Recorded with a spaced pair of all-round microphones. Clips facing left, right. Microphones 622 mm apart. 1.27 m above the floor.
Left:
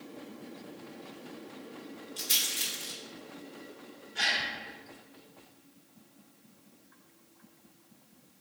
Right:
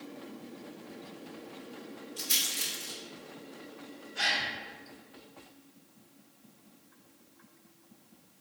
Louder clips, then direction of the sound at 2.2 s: Right 1 dB; 45° left (ahead or behind).